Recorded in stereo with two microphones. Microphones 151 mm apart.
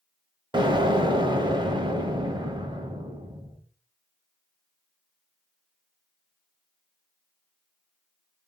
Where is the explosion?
30° right (ahead or behind), 0.8 m.